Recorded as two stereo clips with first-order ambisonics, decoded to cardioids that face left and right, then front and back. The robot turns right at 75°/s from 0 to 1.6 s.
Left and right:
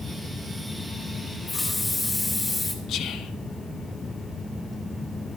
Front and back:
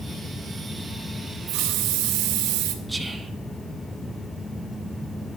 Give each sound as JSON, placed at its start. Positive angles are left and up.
{"t": 1.5, "sound": "a hiss", "azimuth_deg": 160, "distance_m": 1.5}
{"t": 2.9, "sound": "whispering", "azimuth_deg": 100, "distance_m": 1.0}